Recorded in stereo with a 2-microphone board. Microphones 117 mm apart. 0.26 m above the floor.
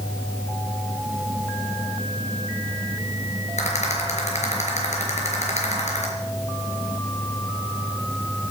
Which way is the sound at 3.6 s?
75° left (ahead or behind).